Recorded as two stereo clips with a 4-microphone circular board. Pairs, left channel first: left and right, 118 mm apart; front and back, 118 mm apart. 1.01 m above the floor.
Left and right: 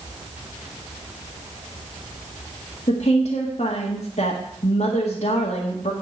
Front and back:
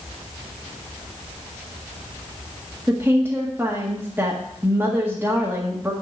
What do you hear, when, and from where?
2.9 s a woman speaking: 105° left, 1.8 m